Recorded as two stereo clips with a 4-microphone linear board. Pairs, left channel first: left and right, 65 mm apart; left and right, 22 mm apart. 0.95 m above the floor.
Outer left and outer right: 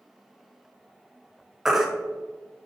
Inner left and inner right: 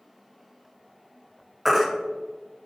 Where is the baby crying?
5° right (ahead or behind), 0.8 m.